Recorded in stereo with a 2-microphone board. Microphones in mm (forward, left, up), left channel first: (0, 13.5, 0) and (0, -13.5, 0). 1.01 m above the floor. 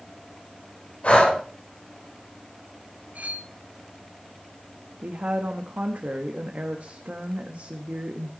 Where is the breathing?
50° left (ahead or behind), 4 m.